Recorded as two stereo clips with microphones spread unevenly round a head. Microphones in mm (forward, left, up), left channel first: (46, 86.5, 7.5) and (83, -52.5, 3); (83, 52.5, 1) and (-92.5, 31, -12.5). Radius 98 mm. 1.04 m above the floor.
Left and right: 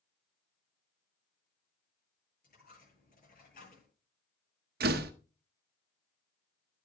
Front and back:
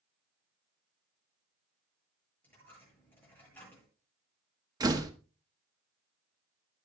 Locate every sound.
2.4 s a dropped coin: 85° left, 9 m
4.8 s a door slam: 100° right, 0.9 m